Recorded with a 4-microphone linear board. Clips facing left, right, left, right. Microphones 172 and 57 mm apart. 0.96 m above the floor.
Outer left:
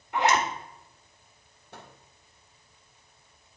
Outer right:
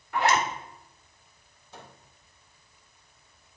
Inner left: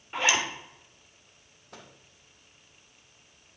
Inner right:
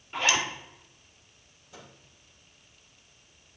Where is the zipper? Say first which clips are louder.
Even, inner left 1 dB; 20° left (ahead or behind), 1.4 m.